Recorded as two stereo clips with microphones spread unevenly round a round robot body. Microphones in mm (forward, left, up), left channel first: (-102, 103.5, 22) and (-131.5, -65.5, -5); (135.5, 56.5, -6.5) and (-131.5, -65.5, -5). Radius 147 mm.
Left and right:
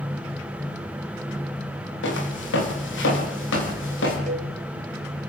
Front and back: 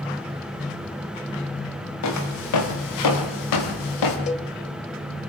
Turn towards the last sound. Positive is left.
turn(degrees=-45)